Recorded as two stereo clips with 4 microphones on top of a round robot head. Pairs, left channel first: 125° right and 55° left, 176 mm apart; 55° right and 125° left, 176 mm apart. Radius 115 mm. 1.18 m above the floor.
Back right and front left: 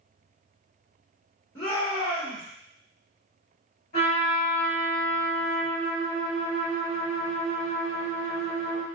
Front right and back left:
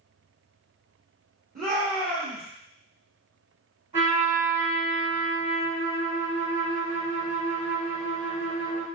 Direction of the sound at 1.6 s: 170° left.